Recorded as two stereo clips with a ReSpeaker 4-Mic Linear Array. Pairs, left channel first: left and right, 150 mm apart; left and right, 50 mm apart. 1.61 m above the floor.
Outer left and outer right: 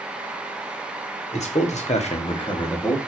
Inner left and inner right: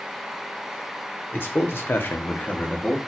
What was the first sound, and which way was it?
A man speaking, 50° left (ahead or behind).